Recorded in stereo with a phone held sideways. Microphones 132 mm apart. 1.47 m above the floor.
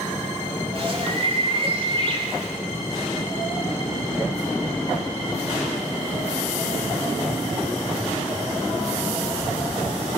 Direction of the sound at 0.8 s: 45° right (ahead or behind).